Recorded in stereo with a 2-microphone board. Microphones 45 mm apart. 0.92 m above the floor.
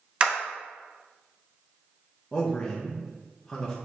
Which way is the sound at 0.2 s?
25° right (ahead or behind).